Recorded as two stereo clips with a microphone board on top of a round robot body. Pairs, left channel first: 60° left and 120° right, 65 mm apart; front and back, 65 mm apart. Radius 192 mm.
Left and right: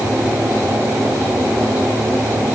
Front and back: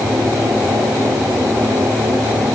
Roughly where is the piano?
No piano in this recording.